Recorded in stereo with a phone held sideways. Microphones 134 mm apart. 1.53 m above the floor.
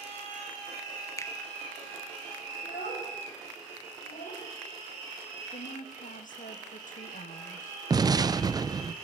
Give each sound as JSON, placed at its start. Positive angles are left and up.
{"t": 1.2, "sound": "a finger snap", "side_deg": 20, "distance_m": 1.1}
{"t": 2.6, "sound": "a child speaking", "side_deg": 80, "distance_m": 5.0}
{"t": 5.5, "sound": "a woman speaking", "side_deg": 75, "distance_m": 1.3}
{"t": 7.9, "sound": "an explosion", "side_deg": -30, "distance_m": 0.5}